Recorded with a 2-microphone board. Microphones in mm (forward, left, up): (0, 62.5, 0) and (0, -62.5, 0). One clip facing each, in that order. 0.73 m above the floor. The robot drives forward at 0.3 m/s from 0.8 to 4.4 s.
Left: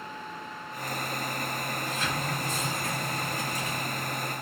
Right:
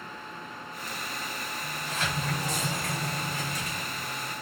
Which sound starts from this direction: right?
A sliding door, at 1.6 s.